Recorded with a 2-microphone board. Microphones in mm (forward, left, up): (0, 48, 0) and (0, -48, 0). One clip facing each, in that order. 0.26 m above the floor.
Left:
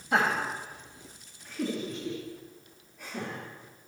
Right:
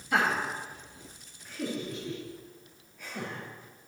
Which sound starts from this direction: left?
Laughter, at 0.1 s.